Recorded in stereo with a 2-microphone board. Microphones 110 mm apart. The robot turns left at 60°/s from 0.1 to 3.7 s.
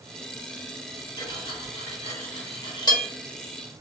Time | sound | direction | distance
1.2 | cutlery clinking | 40° left (ahead or behind) | 1.2 m